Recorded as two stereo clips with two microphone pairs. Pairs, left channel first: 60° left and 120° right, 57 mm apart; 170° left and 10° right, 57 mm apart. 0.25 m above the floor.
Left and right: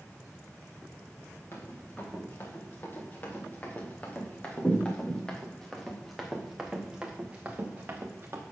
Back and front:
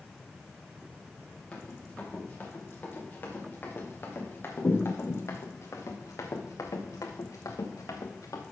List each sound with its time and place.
1.5 s running footsteps: 105° left, 4 m; by 8.4 s 170° right, 2.0 m